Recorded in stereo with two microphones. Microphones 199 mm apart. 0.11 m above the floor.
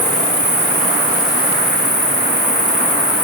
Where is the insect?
60° left (ahead or behind), 1.3 m.